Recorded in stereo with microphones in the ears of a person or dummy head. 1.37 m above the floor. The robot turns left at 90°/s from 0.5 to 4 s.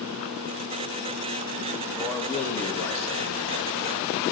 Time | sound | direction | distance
1.9 | a man speaking | straight behind | 1.9 m